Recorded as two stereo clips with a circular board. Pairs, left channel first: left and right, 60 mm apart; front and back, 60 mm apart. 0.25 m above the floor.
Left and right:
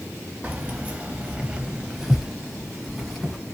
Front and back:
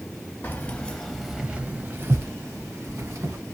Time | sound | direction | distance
0.4 | keys jangling | 40° right | 0.8 m